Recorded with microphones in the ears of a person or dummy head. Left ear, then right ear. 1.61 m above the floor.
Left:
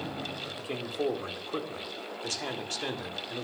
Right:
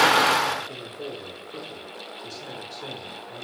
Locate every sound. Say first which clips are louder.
0.6 s a man speaking: left 1 dB; 50° left (ahead or behind), 1.1 m